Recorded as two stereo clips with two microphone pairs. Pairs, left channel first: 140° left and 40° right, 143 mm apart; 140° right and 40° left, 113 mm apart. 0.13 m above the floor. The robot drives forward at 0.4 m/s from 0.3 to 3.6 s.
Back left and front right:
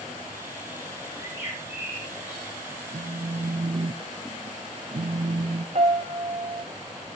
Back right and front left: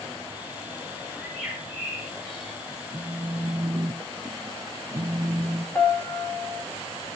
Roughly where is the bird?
Behind left.